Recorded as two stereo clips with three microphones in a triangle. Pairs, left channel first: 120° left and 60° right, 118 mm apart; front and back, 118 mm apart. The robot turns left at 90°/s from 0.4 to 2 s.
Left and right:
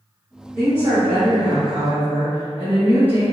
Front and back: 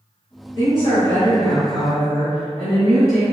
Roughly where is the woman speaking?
Ahead.